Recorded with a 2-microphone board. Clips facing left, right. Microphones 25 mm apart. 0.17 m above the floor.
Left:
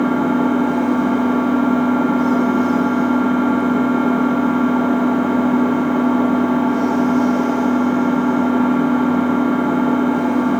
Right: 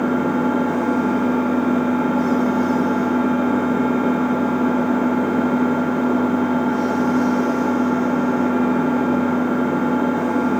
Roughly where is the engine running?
Left.